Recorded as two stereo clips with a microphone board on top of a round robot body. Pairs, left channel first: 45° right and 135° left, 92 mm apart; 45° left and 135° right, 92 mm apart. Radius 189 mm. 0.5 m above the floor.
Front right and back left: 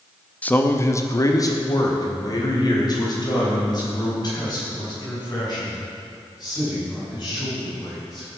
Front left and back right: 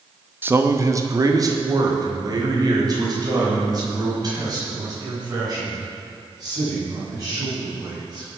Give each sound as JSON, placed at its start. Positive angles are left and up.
{"t": 0.4, "sound": "a man speaking", "azimuth_deg": -100, "distance_m": 1.0}